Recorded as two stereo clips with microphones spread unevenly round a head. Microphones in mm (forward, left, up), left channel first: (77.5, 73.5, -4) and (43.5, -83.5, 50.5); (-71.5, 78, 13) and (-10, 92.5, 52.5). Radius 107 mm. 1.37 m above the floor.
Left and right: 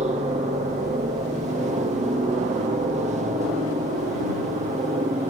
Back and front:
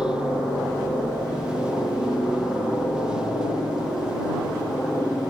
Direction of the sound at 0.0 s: 135° right.